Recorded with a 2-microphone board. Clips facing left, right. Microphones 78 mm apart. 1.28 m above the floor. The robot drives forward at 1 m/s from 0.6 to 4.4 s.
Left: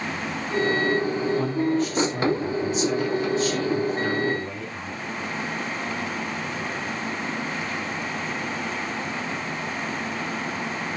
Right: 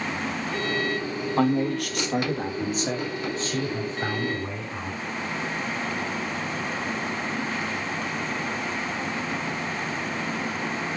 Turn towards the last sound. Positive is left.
turn(degrees=-25)  # may be behind; listen again after turning